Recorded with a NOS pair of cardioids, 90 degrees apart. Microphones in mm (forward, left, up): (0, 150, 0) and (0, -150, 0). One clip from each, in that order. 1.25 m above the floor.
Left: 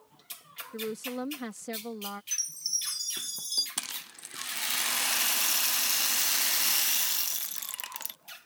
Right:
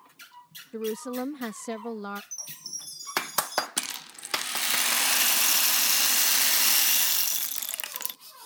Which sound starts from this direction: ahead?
A rattle, at 3.8 s.